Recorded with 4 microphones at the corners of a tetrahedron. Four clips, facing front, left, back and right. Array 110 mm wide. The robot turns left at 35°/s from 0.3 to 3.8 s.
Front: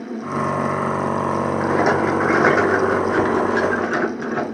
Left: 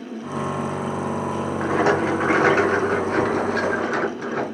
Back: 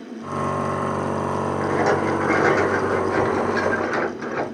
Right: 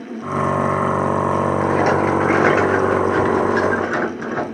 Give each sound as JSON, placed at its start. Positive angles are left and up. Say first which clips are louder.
{"t": 1.6, "sound": "a rattle", "louder": "even, front 2 dB", "azimuth_deg": 25, "distance_m": 2.0}